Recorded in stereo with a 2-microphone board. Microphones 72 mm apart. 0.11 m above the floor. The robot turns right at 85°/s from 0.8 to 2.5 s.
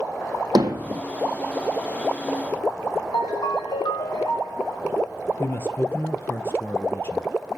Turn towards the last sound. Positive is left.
turn(degrees=35)  # may be behind; listen again after turning